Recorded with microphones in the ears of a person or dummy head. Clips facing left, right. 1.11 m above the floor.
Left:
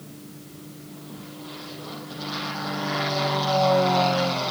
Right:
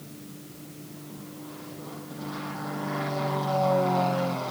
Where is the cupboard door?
No cupboard door in this recording.